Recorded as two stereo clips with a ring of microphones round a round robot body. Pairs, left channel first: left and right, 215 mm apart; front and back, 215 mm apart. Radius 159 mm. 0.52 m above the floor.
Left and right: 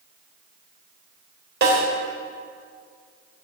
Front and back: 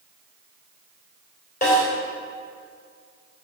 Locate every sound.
1.6 s a snare drum: 60° right, 3 m